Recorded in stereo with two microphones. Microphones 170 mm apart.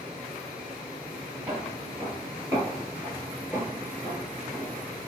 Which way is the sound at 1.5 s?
20° right (ahead or behind).